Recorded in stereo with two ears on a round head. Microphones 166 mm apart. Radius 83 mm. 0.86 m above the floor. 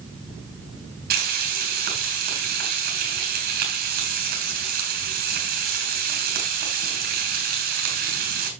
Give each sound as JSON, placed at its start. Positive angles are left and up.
{"t": 1.1, "sound": "frying", "side_deg": -55, "distance_m": 6.5}